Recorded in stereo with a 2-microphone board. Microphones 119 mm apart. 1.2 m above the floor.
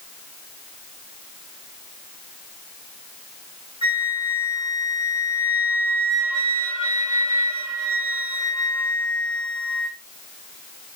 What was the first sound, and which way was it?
A flute, 45° left (ahead or behind).